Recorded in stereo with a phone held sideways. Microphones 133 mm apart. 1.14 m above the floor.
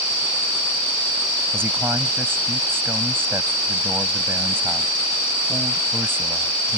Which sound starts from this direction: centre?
A man speaking, at 1.5 s.